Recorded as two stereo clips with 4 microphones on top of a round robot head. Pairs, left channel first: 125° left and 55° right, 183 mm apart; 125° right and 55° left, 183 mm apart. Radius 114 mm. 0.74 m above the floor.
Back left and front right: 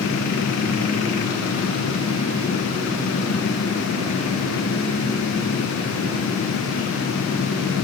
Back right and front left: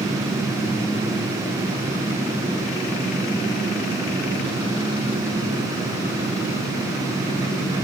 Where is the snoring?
No snoring in this recording.